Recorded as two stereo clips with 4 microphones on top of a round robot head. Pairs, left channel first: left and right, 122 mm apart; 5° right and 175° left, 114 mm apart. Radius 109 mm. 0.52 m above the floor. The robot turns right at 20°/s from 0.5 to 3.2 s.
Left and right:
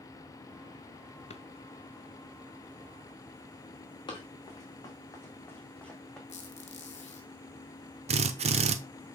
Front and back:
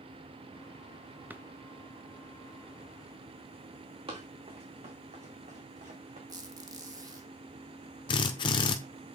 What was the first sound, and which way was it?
A drawer, 100° left.